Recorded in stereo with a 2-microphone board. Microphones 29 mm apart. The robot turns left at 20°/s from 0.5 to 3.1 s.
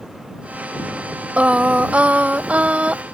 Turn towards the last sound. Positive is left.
turn(degrees=-110)